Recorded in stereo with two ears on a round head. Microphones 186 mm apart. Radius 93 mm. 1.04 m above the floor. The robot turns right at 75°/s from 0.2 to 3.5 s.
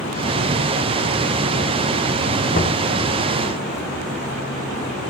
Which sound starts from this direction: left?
Knocking, at 2.5 s.